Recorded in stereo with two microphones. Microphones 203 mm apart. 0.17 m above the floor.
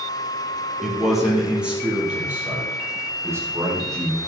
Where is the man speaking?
Centre (ahead or behind), 4.5 m; by 4.2 s 15° right (ahead or behind), 6.5 m.